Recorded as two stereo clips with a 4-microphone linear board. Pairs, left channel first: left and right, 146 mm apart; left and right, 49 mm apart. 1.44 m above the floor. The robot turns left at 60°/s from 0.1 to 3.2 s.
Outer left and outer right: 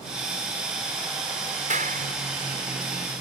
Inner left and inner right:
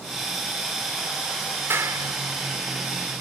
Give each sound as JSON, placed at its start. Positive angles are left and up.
{"t": 1.7, "sound": "a clap", "side_deg": -60}